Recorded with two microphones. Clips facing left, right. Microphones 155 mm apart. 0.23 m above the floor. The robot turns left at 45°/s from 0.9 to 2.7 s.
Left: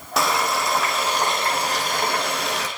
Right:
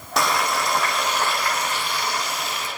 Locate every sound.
0.2 s frying: straight behind, 6.5 m; by 2.7 s 100° left, 6.5 m